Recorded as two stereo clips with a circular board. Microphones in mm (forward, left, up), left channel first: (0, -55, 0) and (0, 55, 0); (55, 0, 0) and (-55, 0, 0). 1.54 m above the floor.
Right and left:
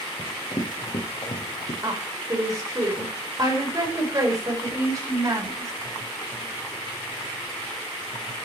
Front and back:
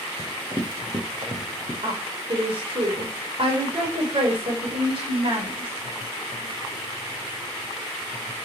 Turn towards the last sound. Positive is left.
turn(degrees=145)